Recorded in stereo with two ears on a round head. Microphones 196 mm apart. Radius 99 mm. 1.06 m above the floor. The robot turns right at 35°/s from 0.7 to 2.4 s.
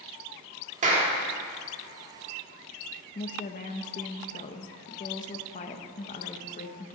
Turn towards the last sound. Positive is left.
turn(degrees=35)  # may be behind; listen again after turning